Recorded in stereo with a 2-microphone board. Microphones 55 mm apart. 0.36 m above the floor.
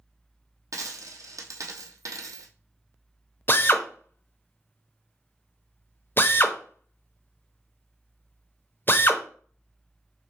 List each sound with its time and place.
0.7 s a dropped coin: 70° right (ahead or behind), 1.2 m
3.5 s a drill: 35° left (ahead or behind), 0.6 m